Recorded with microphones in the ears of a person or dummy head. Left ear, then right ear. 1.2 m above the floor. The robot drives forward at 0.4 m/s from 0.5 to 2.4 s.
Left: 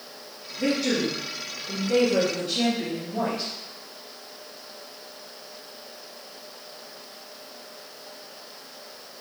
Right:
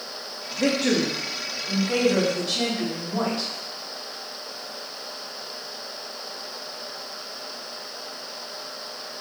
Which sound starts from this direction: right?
A woman speaking, at 0.6 s.